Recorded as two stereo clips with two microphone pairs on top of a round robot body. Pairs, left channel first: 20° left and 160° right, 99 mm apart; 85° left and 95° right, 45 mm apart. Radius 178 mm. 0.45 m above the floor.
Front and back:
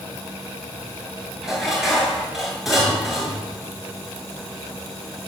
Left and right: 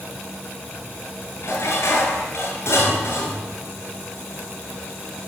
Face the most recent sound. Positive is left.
turn(degrees=110)